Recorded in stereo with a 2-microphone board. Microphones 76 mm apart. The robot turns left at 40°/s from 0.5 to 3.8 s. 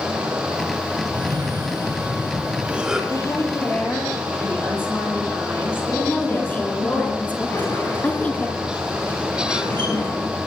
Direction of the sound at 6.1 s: 20° left (ahead or behind).